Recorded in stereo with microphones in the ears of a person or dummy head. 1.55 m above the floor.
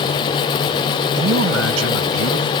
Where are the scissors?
No scissors in this recording.